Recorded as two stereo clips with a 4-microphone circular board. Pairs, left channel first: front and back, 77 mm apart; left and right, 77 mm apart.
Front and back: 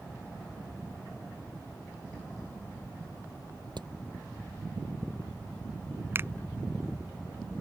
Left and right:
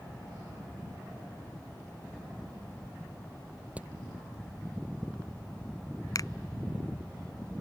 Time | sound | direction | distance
3.8 | hammering | 160° right | ?
6.2 | a finger snap | 125° left | ?